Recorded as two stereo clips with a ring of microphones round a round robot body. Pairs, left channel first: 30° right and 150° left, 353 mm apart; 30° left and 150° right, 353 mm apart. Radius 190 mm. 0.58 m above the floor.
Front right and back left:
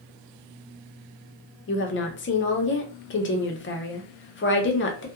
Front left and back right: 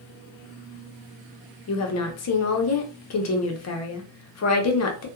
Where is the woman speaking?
15° left, 0.7 m.